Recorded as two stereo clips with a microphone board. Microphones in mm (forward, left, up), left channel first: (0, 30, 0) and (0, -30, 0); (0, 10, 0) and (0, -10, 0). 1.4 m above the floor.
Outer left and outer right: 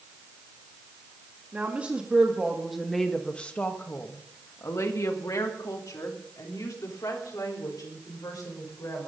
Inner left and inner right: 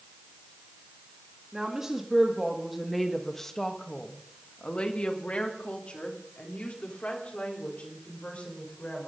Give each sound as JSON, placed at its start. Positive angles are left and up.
{"t": 1.5, "sound": "a woman speaking", "side_deg": -30, "distance_m": 2.5}